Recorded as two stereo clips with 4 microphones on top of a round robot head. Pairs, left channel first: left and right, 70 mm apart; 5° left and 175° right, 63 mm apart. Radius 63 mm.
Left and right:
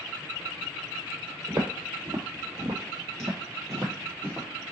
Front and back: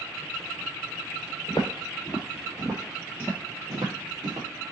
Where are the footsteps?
55° right, 1.8 m; by 4.5 s 160° right, 1.5 m.